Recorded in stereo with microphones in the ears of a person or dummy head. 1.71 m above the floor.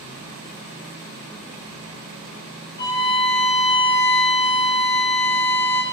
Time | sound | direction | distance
2.8 | a violin | 15° left (ahead or behind) | 0.6 m